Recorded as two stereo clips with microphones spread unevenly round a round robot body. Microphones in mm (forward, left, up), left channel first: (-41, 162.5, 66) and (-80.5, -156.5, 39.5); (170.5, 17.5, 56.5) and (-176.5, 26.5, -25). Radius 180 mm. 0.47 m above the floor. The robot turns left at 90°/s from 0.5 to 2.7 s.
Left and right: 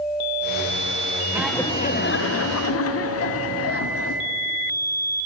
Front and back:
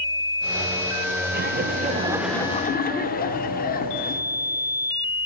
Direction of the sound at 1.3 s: 170° right.